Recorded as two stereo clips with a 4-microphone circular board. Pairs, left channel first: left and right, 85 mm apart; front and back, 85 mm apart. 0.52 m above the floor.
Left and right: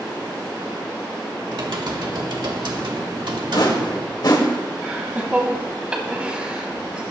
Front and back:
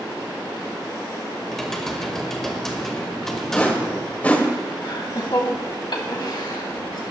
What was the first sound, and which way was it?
Typing on a keyboard, 85° right.